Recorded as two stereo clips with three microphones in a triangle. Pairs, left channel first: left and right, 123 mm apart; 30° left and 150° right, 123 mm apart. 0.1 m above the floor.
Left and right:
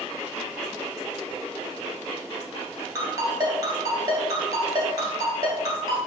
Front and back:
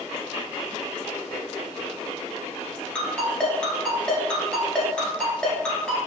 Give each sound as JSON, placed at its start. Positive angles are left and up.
{"t": 3.0, "sound": "a ringtone", "azimuth_deg": -50, "distance_m": 1.1}